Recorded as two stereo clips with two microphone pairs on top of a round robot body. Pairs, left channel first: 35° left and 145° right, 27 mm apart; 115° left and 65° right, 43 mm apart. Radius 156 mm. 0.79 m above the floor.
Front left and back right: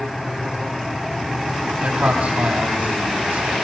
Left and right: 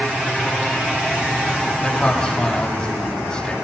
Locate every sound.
1.8 s a man speaking: 165° right, 7 m